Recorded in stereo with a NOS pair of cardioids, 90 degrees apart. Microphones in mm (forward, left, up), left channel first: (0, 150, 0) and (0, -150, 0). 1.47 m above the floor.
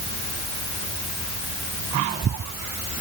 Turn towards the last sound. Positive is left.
No sound to turn to.